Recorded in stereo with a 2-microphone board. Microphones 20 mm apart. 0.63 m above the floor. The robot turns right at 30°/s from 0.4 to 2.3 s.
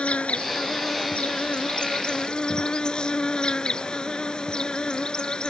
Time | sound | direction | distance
0.0 | an insect | 85° left | ?